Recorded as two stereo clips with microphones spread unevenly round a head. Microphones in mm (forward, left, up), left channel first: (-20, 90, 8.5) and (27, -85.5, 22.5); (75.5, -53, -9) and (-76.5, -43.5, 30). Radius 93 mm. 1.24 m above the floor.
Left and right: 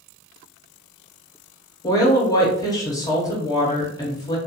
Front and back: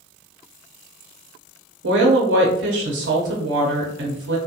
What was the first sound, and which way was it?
A woman speaking, 175° left.